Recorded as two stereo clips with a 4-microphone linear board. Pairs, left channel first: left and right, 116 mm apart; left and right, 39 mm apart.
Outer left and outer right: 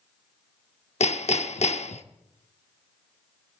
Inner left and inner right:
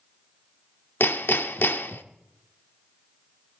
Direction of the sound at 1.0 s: 70° left (ahead or behind).